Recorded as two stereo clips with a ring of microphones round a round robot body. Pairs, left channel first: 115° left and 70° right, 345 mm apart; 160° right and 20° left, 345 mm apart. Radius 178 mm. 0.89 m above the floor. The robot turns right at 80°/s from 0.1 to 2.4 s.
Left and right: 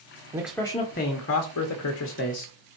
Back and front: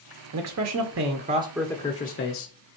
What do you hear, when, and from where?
0.3 s a man speaking: 10° left, 0.8 m; by 2.5 s 175° left, 0.8 m